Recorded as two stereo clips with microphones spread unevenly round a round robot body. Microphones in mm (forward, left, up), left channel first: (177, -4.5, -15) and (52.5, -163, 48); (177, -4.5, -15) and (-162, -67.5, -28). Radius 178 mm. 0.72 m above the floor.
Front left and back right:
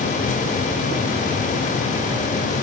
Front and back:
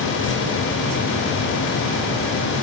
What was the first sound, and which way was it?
Only background noise.